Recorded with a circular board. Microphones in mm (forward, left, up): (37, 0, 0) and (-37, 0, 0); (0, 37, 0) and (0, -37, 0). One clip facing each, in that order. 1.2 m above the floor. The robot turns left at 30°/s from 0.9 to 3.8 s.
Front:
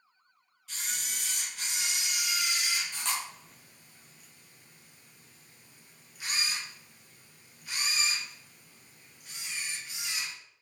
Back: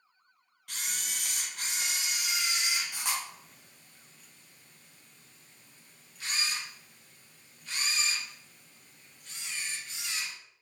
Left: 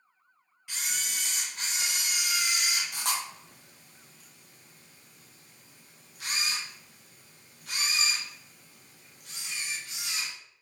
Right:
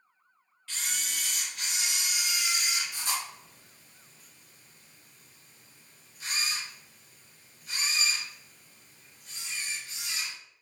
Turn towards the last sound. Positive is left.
turn(degrees=80)